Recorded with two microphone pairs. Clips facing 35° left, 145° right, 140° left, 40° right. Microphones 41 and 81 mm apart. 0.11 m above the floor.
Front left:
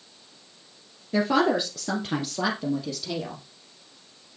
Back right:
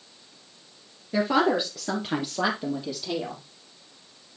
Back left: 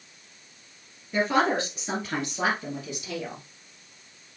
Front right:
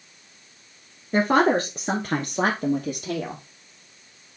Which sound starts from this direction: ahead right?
A woman speaking, at 1.1 s.